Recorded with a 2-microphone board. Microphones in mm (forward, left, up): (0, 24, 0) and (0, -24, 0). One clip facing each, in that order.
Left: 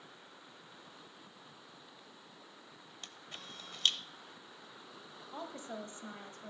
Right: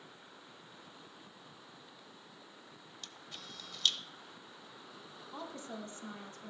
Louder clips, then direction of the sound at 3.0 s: Left 1 dB; 35° left (ahead or behind).